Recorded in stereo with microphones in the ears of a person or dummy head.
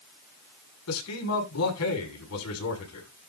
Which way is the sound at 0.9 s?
85° left.